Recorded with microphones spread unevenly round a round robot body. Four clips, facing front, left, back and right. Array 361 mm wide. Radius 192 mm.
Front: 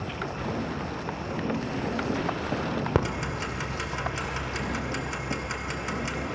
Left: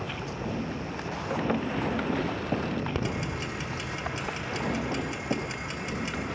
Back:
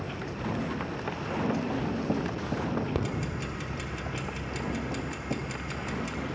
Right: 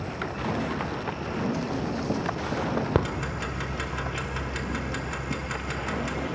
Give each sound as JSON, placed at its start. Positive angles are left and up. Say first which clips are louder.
{"t": 3.0, "sound": "ticking", "louder": "right 4 dB, front 4 dB", "azimuth_deg": -45, "distance_m": 2.5}